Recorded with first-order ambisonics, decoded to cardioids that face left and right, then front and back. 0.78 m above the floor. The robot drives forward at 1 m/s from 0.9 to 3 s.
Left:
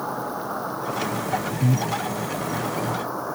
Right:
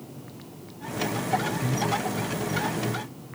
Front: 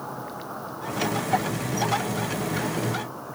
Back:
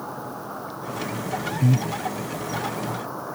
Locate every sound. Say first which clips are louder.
0.0 s an insect: left 17 dB, back 1 dB; 95° left; by 3.4 s 105° left
1.6 s breathing: left 2 dB, even; 145° left; by 1.9 s 150° left